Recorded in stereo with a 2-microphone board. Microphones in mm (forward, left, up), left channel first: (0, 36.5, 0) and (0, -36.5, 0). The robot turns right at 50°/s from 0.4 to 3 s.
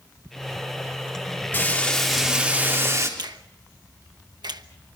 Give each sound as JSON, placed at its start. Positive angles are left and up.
{"t": 1.5, "sound": "frying", "azimuth_deg": 155, "distance_m": 4.0}
{"t": 3.2, "sound": "a finger snap", "side_deg": -75, "distance_m": 1.1}